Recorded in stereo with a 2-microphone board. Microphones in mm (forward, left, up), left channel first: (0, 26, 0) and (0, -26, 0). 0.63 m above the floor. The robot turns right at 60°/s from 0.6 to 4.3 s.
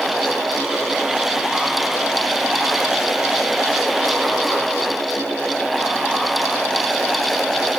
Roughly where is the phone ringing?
No phone ringing in this recording.